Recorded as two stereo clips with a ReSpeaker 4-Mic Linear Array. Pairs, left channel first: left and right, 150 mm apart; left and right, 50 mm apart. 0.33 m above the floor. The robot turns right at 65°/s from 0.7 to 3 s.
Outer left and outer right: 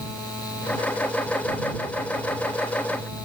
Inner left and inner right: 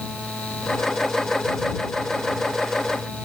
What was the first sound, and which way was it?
Only background noise.